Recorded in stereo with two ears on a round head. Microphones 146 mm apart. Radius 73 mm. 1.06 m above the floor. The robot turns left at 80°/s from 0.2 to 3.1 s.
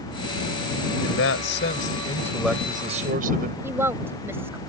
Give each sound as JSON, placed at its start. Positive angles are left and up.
{"t": 1.0, "sound": "a man speaking", "azimuth_deg": 115}
{"t": 3.6, "sound": "a woman speaking", "side_deg": -15}